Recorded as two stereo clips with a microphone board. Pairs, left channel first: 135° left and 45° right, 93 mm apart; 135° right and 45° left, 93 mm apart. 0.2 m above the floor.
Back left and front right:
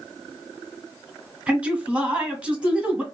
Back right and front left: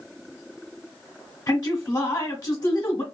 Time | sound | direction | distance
1.5 | a man speaking | 100° right | 1.3 m